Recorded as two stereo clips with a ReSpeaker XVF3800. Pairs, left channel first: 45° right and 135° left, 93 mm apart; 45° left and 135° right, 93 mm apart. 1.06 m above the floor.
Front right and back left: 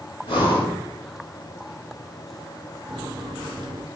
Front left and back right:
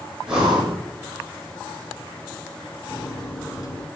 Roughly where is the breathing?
Ahead right.